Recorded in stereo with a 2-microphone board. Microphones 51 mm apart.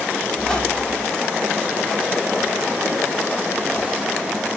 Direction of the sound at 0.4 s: 15° left (ahead or behind).